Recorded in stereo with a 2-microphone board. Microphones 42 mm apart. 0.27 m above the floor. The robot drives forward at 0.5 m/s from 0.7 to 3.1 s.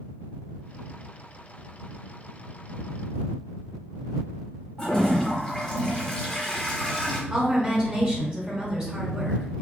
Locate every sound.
4.8 s a toilet flushing: 20° left (ahead or behind), 0.7 m
7.3 s a woman speaking: 20° right (ahead or behind), 0.9 m